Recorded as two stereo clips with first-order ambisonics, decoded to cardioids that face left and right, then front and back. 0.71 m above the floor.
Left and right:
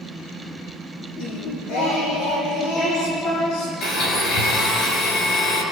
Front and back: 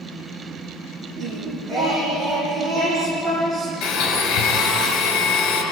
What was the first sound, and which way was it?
Singing, 105° left.